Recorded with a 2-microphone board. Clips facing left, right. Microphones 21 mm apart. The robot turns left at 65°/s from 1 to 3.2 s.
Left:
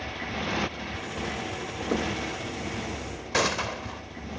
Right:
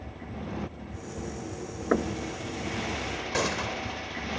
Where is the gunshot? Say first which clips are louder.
Left 4 dB; 20° left (ahead or behind).